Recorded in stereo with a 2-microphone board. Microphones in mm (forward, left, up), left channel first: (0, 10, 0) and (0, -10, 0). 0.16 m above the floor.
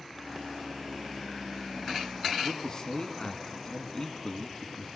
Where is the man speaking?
30° left (ahead or behind), 1.7 m.